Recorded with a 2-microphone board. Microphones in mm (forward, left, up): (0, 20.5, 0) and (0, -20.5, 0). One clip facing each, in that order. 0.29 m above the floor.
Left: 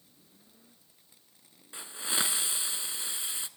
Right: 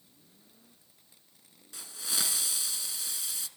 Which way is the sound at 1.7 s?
35° left (ahead or behind).